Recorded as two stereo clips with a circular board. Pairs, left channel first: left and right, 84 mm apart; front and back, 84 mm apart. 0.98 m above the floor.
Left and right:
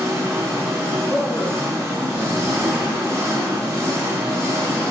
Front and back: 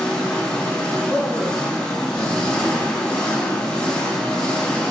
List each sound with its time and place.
0.0 s an engine running: 70° right, 0.9 m
1.1 s a man speaking: 155° left, 1.8 m